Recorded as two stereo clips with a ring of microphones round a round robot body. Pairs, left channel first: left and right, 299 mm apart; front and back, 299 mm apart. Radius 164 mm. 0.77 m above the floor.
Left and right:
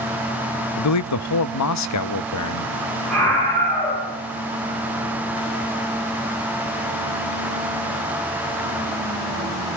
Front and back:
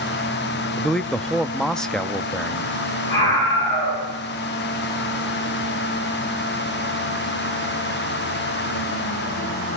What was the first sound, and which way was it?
A man speaking, 85° left.